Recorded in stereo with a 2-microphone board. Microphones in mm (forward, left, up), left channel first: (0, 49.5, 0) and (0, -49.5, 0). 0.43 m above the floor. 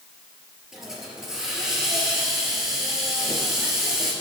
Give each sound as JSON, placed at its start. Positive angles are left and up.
{"t": 0.7, "sound": "a hiss", "side_deg": -5, "distance_m": 3.5}